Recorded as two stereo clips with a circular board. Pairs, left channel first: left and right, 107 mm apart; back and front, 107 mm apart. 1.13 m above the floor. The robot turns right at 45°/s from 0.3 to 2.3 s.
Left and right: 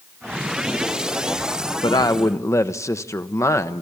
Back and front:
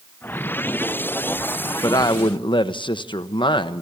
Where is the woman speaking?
125° left, 1.0 m; by 3.8 s 150° left, 1.0 m.